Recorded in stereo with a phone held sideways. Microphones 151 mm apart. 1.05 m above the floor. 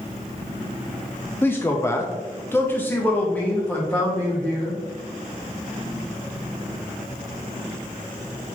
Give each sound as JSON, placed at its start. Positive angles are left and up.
{"t": 1.4, "sound": "a man speaking", "side_deg": 15, "distance_m": 0.5}